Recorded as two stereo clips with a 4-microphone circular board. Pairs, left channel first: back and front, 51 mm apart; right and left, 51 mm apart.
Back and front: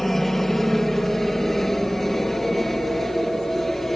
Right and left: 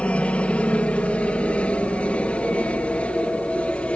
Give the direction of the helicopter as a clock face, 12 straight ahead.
3 o'clock.